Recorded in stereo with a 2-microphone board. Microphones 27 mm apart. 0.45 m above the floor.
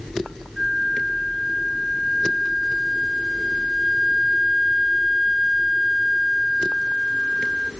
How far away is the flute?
About 0.8 m.